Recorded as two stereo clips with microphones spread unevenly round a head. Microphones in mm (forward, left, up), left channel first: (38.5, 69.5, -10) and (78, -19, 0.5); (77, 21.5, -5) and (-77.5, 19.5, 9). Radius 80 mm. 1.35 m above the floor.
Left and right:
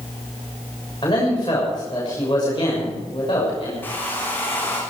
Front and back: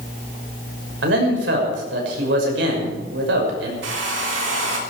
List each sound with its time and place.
1.0 s a man speaking: straight behind, 6.5 m
3.8 s a hair dryer: 165° right, 3.5 m